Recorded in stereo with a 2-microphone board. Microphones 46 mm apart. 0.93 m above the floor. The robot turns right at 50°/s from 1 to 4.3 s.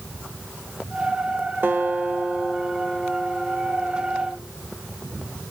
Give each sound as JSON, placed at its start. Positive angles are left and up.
{"t": 1.6, "sound": "a guitar", "azimuth_deg": -55, "distance_m": 1.7}